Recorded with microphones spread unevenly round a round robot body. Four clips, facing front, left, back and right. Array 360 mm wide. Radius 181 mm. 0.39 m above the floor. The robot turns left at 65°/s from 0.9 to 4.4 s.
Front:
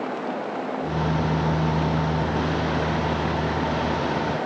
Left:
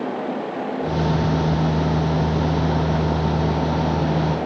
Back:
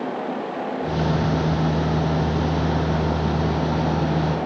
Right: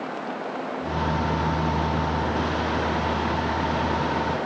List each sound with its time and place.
Only background noise.